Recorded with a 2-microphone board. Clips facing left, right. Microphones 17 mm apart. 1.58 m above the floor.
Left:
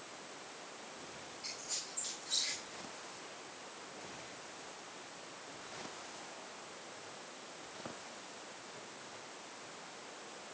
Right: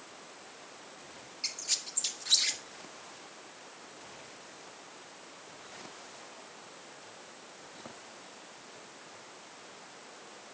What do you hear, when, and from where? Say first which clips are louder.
1.4 s a squeak: right 10 dB; 65° right (ahead or behind), 1.7 m